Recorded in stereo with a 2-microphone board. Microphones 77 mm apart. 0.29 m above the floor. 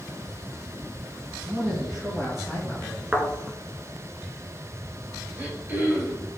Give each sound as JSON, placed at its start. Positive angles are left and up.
{"t": 1.3, "sound": "a man speaking", "side_deg": -10, "distance_m": 2.5}
{"t": 3.1, "sound": "a thud", "side_deg": -20, "distance_m": 1.7}
{"t": 5.3, "sound": "throat clearing", "side_deg": -25, "distance_m": 3.0}